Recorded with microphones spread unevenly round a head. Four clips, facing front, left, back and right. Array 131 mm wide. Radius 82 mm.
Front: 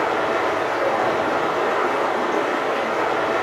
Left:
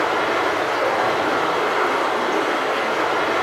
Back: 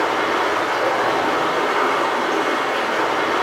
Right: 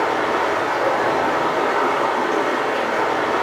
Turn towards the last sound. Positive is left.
turn(degrees=-90)